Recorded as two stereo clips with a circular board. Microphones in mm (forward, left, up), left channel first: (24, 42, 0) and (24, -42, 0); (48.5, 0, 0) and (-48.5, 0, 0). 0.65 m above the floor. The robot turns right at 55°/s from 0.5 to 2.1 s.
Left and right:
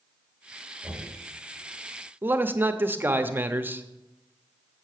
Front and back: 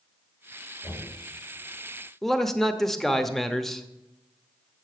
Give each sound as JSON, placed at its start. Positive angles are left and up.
{"t": 0.8, "sound": "knocking", "azimuth_deg": -15, "distance_m": 3.0}
{"t": 2.2, "sound": "a man speaking", "azimuth_deg": -85, "distance_m": 0.7}